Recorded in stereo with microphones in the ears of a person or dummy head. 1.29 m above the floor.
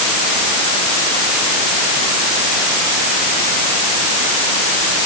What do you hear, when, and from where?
Only background noise.